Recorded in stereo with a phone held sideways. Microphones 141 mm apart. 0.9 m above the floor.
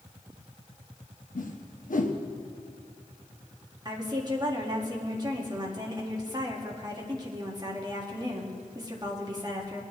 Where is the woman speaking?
30° right (ahead or behind), 1.7 m.